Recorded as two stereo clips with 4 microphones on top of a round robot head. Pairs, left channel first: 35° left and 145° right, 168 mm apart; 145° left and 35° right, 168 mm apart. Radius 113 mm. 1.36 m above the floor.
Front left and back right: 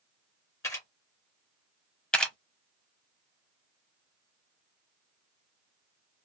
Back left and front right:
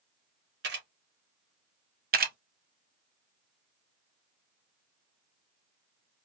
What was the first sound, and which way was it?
A camera shutter, 35° right.